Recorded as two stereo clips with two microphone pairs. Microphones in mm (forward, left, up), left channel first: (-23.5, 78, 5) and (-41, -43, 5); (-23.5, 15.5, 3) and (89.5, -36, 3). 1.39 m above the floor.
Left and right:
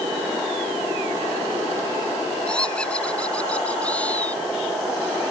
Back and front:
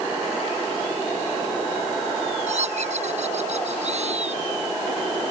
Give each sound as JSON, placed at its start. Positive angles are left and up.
{"t": 2.5, "sound": "laughter", "azimuth_deg": 0}